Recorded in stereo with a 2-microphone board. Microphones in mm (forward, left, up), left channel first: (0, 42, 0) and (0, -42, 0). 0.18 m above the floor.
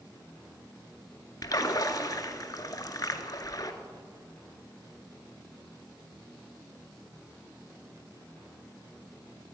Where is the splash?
45° left (ahead or behind), 0.8 m.